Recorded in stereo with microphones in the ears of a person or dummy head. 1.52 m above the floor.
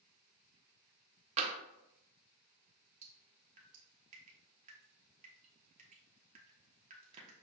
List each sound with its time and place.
1.4 s tapping: 35° right (ahead or behind), 0.6 m
3.0 s dripping: 35° right (ahead or behind), 1.0 m